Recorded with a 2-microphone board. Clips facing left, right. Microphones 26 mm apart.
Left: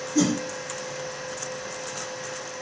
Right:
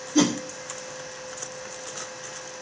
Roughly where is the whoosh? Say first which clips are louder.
Right 1 dB; right.